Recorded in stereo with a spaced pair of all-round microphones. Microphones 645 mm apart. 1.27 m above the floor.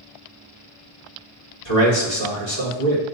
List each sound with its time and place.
1.6 s a man speaking: 55° left (ahead or behind), 1.6 m